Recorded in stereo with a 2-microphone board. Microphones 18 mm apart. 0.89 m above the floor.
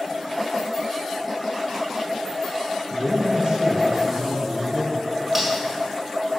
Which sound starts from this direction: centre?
Cutlery clinking, at 5.3 s.